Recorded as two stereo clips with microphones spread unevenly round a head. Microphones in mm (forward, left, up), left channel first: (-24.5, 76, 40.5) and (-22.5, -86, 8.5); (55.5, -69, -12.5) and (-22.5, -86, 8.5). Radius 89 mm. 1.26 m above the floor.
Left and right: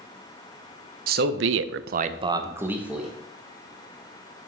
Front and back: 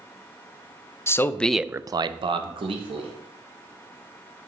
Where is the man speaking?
50° right, 0.8 m; by 3.1 s 175° right, 1.5 m.